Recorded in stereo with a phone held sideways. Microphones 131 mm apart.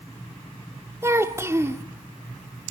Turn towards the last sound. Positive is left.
turn(degrees=-20)  # may be behind; listen again after turning